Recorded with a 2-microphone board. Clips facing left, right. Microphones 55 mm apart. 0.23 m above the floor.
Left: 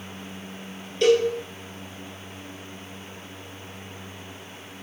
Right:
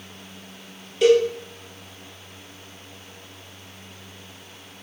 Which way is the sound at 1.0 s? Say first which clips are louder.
Right 2 dB; 5° right (ahead or behind).